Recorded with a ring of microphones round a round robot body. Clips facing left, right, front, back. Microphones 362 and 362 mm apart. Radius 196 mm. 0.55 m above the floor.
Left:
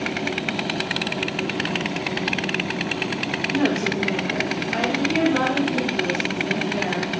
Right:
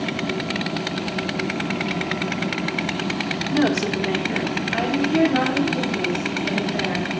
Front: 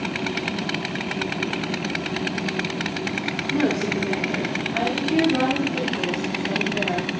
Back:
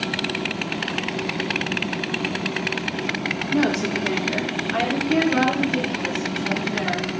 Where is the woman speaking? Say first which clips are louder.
Right 2 dB, back 1 dB; 110° right, 1.5 m; by 7.1 s 175° right, 6 m.